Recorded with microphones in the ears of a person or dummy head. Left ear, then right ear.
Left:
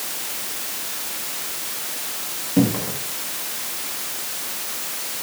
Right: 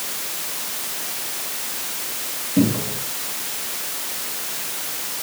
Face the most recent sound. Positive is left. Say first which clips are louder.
# even
turn(degrees=20)  # may be behind; listen again after turning